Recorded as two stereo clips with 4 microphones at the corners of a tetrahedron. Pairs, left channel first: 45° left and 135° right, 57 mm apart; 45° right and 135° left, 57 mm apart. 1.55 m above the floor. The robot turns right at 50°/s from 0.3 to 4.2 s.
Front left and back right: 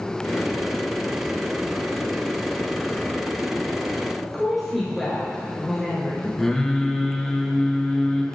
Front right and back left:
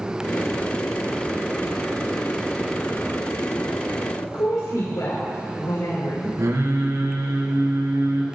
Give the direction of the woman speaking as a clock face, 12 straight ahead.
2 o'clock.